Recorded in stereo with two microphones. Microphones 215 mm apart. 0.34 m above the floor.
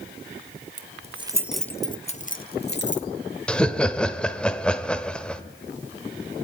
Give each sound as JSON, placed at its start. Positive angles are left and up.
{"t": 0.8, "sound": "keys jangling", "side_deg": -40, "distance_m": 0.9}
{"t": 3.5, "sound": "laughter", "side_deg": 5, "distance_m": 1.1}